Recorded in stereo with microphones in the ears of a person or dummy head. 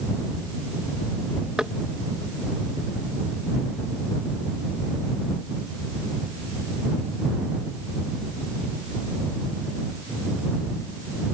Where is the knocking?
5° right (ahead or behind).